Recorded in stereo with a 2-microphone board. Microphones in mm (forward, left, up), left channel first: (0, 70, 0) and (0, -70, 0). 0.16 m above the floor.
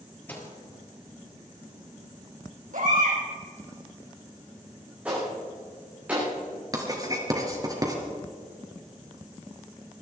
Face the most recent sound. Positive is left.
turn(degrees=-25)  # may be behind; listen again after turning